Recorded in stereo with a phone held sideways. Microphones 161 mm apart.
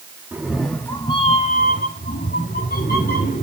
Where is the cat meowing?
10° right (ahead or behind), 1.1 m; by 3.4 s 75° left (ahead or behind), 2.5 m.